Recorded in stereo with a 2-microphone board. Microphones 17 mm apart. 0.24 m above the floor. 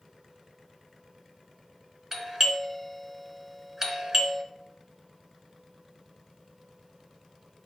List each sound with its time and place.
2.1 s a doorbell: 20° right (ahead or behind), 1.4 m